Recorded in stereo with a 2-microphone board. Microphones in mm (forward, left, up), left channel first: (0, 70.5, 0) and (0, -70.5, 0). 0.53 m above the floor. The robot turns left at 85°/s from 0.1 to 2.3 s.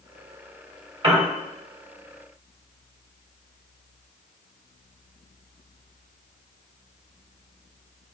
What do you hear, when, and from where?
1.0 s a piano: 35° right (ahead or behind), 1.4 m; by 1.3 s 20° right (ahead or behind), 1.4 m